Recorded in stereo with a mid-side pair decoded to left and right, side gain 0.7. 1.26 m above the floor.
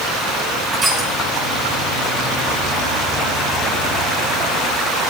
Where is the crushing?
25° right, 9.5 m.